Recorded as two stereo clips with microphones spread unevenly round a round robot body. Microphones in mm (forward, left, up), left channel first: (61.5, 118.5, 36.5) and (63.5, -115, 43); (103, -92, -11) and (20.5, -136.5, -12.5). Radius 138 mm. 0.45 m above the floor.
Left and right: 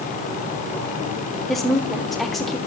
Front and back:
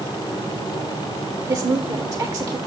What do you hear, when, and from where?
1.5 s a woman speaking: 175° left, 1.0 m